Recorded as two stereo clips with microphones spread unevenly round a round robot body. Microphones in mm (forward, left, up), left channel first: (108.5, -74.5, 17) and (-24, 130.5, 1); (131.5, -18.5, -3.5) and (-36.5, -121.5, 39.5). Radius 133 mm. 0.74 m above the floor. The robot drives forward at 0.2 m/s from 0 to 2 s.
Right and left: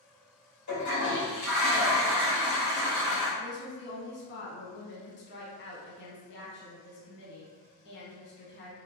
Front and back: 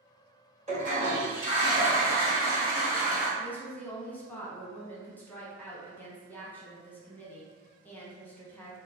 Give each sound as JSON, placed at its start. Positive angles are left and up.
{"t": 0.7, "sound": "a toilet flushing", "azimuth_deg": -90, "distance_m": 1.5}
{"t": 3.4, "sound": "a woman speaking", "azimuth_deg": -35, "distance_m": 0.7}